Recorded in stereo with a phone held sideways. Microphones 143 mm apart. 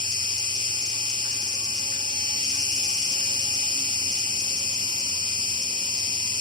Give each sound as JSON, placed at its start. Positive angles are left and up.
{"t": 0.0, "sound": "an insect", "side_deg": -30, "distance_m": 1.7}